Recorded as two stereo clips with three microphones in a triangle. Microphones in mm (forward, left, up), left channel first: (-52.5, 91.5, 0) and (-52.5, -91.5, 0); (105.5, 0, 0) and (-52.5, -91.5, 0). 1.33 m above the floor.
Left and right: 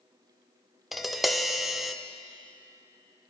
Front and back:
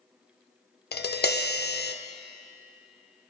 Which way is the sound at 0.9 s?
Straight ahead.